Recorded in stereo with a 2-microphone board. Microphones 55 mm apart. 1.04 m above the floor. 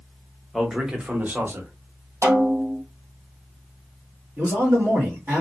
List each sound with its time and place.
0.5 s a man speaking: centre (ahead or behind), 0.8 m; by 1.7 s 45° right (ahead or behind), 1.0 m
2.2 s a snare drum: 45° right (ahead or behind), 1.2 m
4.4 s a man speaking: 35° right (ahead or behind), 1.6 m